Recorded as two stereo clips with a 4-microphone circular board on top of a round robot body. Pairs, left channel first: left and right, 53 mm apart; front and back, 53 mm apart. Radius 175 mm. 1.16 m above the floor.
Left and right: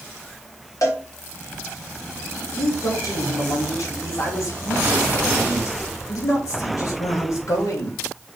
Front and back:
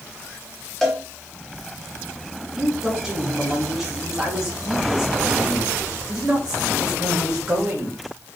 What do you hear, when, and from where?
0.8 s a cowbell: 85° left, 2.5 m
2.6 s a man speaking: 100° left, 2 m